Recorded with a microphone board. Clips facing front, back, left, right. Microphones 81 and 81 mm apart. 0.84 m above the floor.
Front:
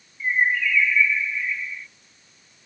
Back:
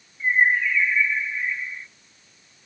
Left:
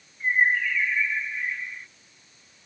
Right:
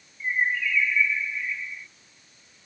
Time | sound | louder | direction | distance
0.2 | a bird | back 2 dB, left 3 dB | 125° left | ?